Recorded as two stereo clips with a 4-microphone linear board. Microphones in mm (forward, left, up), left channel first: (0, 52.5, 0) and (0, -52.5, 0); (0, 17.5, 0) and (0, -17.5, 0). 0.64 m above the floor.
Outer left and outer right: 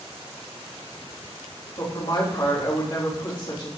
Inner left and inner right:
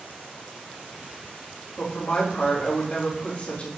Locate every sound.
1.8 s a woman speaking: 40° left (ahead or behind), 3.5 m